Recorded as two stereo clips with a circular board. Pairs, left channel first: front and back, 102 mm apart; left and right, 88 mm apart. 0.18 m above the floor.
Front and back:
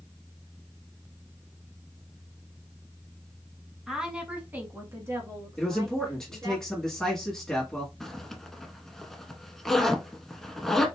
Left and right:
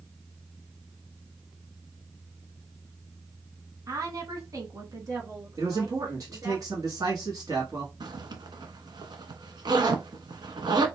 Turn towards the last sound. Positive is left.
turn(degrees=-85)